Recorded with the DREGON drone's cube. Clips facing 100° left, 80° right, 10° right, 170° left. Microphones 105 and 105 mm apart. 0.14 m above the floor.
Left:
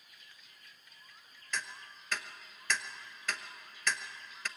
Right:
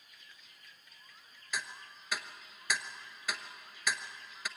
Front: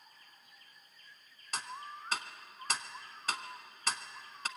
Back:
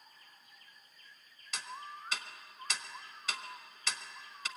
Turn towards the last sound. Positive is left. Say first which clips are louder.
# even, front 2 dB
turn(degrees=-5)